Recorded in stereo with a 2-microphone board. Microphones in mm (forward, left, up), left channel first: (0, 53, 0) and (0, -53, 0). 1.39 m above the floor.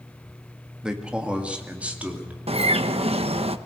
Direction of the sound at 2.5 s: 70° right (ahead or behind).